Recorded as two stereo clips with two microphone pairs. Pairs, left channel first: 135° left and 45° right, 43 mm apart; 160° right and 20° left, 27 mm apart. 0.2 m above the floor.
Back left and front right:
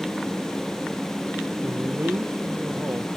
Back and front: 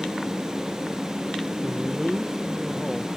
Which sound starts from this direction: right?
A man speaking, at 1.6 s.